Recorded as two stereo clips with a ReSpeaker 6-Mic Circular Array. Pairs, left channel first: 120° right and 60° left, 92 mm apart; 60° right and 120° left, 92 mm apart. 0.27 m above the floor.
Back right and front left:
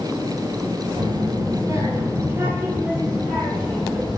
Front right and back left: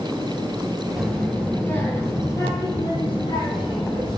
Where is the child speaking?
30° left, 3 m; by 4.2 s 30° right, 6 m.